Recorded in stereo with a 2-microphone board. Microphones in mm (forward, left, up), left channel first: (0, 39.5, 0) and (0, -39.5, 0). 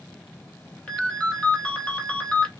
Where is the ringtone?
15° left (ahead or behind), 1.0 m.